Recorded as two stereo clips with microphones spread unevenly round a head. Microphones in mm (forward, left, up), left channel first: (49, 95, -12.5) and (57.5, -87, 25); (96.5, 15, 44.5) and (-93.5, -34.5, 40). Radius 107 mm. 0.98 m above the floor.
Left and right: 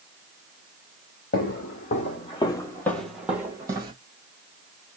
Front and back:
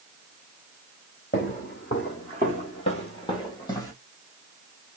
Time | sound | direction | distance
1.3 | footsteps | 60° left | 1.4 m